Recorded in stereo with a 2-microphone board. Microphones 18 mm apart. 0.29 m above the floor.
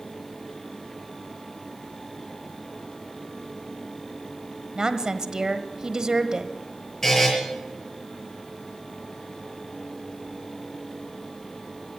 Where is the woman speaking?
40° right (ahead or behind), 1.0 m.